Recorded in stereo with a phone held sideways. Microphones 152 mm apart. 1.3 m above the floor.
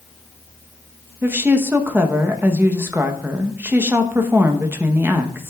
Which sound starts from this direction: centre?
A woman speaking, at 1.2 s.